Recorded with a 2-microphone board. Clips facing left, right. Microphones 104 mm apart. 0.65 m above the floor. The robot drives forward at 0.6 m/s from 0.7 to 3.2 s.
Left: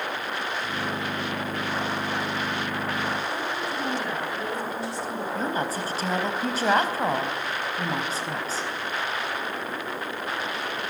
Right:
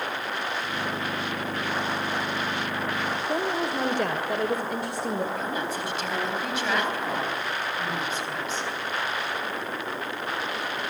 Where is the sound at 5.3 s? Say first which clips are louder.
Left 2 dB; 40° left (ahead or behind), 4.5 m.